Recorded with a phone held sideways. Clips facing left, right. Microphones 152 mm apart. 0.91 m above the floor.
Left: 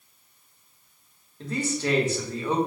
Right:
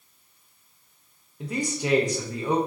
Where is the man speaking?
15° right (ahead or behind), 0.6 m.